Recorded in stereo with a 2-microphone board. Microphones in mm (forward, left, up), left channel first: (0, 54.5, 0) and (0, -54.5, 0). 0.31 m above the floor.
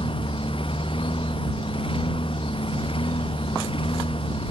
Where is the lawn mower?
55° left (ahead or behind); by 4.5 s 60° left (ahead or behind).